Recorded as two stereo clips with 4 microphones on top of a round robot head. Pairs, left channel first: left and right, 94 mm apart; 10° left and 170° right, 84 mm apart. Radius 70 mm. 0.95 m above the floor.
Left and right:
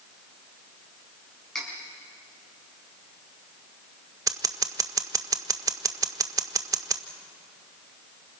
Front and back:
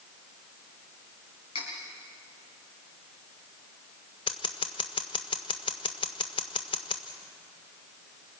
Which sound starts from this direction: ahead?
Cutlery clinking, at 1.6 s.